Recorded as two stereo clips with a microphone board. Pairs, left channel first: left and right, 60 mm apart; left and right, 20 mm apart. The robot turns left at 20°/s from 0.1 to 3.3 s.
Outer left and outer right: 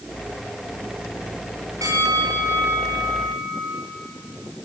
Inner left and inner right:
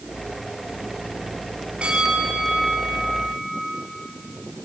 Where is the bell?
70° right (ahead or behind), 8.5 m; by 3.8 s 80° right, 8.5 m.